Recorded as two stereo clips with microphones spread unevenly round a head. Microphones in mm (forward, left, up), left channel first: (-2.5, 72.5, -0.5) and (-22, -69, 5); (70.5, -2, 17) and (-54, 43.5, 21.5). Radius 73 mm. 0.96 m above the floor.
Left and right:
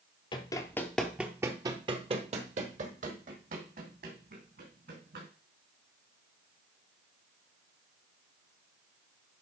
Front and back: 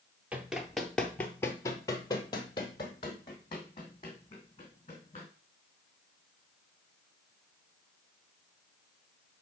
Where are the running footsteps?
90° left, 1.0 m; by 5.3 s 80° right, 3.5 m.